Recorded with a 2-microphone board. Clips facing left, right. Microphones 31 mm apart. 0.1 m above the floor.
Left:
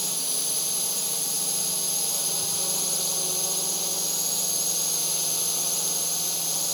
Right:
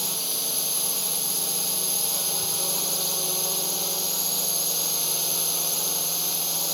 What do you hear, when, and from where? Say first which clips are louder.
0.0 s a drone: right 1 dB; 10° right (ahead or behind)